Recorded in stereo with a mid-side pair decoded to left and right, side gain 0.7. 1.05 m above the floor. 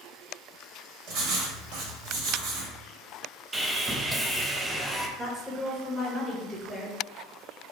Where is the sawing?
10° right, 0.5 m.